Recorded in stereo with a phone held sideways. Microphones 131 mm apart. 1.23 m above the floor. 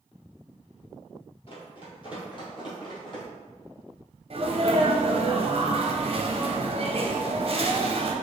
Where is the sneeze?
45° right (ahead or behind), 0.9 m.